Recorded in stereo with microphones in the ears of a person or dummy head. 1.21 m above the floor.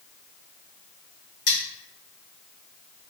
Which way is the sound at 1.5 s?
65° left (ahead or behind).